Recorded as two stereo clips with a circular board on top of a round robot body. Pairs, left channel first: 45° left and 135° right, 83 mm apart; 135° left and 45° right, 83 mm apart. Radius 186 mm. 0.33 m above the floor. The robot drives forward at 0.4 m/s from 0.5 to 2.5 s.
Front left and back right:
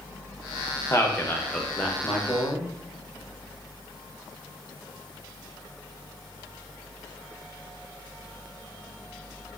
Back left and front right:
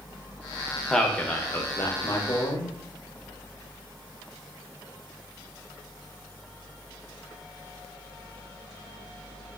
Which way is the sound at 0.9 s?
55° left.